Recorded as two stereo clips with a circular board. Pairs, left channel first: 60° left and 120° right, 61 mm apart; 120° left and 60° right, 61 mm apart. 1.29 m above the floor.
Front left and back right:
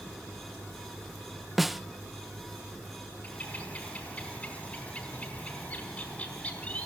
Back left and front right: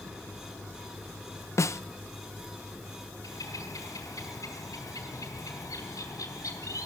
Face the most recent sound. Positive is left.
turn(degrees=125)